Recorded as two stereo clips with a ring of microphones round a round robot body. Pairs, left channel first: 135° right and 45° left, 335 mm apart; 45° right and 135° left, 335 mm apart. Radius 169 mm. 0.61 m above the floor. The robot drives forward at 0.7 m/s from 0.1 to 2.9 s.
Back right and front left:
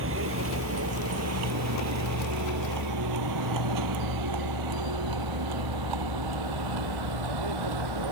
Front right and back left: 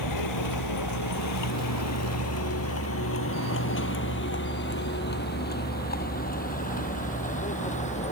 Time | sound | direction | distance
0.0 | a vehicle | 10° right | ?